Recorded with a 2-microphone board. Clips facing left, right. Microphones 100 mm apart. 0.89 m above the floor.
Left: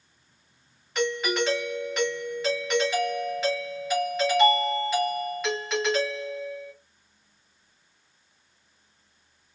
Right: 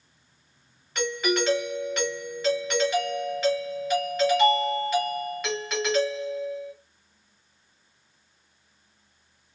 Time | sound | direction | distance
0.9 | a doorbell | centre (ahead or behind) | 1.3 m